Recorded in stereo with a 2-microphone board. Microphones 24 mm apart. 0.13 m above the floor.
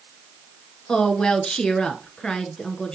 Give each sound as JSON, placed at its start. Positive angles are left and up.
{"t": 0.9, "sound": "a woman speaking", "side_deg": 35, "distance_m": 1.3}